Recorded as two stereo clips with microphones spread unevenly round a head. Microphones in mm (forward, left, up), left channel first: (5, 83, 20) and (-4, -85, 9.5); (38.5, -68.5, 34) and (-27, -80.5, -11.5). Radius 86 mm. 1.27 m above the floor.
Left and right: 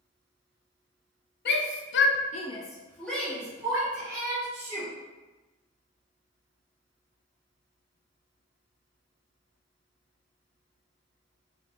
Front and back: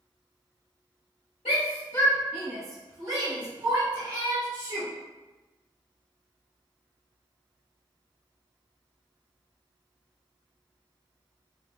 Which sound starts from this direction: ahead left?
A shout, at 1.4 s.